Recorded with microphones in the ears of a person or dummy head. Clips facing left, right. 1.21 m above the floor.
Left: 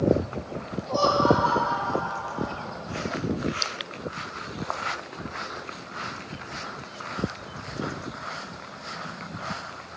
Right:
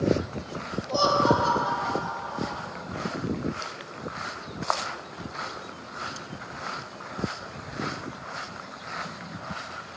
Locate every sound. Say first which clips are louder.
0.9 s laughter: left 2 dB; 10° right (ahead or behind), 0.6 m; by 2.6 s 65° right (ahead or behind), 1.3 m